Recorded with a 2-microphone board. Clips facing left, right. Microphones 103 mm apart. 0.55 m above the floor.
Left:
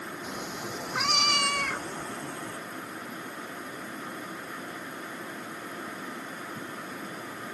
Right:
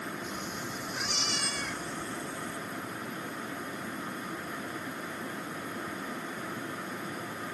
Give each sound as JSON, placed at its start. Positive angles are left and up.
{"t": 0.2, "sound": "a cat meowing", "side_deg": 75}